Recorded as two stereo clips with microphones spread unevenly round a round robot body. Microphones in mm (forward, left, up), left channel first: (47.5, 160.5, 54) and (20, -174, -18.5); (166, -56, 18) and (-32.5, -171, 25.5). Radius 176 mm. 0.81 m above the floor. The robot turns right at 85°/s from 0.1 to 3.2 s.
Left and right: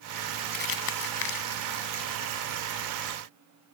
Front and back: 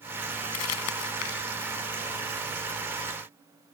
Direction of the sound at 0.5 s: 20° left.